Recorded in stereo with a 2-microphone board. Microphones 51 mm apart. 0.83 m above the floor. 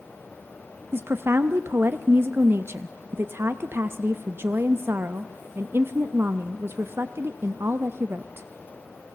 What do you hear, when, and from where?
0.9 s a woman speaking: 50° right (ahead or behind), 0.5 m